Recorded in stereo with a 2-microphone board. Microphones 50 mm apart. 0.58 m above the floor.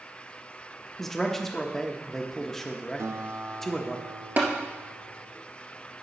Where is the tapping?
50° right (ahead or behind), 2 m.